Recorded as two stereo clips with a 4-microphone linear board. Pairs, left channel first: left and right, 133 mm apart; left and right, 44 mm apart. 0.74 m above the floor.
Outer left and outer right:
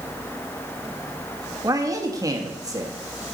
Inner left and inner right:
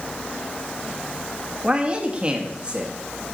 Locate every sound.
1.6 s a man speaking: 25° right (ahead or behind), 1.0 m